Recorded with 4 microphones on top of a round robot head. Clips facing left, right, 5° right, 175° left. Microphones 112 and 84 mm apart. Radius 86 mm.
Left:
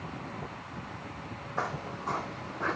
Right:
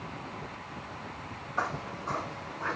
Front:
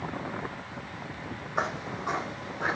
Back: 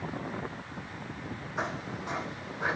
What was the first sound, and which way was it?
Footsteps, 25° left.